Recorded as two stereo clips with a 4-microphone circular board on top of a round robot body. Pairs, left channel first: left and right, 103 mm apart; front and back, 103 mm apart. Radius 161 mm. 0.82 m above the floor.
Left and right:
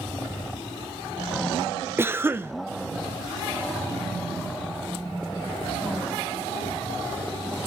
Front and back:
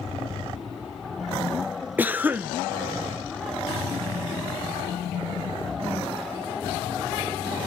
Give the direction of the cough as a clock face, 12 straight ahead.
4 o'clock.